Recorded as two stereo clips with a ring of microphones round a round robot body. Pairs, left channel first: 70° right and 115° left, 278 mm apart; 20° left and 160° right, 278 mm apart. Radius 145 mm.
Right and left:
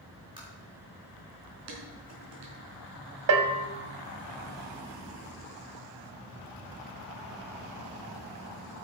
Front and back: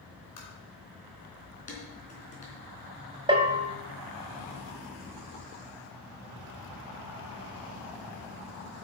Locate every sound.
0.4 s tapping: 40° left, 4.5 m
1.7 s dishes clattering: 85° left, 3.5 m
3.3 s a bell: 130° left, 1.5 m